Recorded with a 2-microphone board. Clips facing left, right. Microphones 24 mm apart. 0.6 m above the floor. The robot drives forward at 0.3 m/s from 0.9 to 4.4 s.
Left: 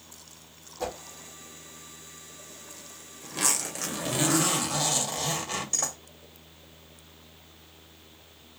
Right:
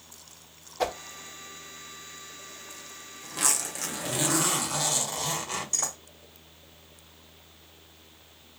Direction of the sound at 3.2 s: 10° left (ahead or behind).